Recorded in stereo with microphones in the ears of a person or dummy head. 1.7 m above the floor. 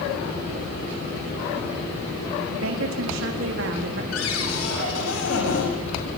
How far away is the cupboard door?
About 7 m.